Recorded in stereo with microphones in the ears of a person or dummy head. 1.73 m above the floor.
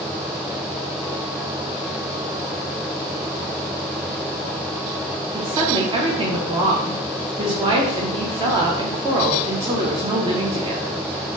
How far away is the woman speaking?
About 0.6 m.